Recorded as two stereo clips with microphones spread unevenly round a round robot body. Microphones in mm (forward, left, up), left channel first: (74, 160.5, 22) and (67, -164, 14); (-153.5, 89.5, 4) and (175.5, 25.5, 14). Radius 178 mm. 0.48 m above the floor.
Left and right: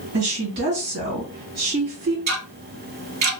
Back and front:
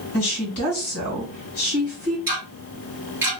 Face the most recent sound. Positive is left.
turn(degrees=-95)